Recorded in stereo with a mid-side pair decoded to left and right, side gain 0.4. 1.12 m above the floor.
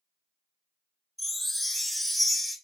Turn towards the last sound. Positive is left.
turn(degrees=0)